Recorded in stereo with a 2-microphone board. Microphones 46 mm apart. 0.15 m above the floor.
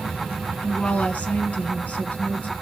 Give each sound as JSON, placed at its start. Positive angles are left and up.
{"t": 0.6, "sound": "a woman speaking", "side_deg": 35, "distance_m": 1.7}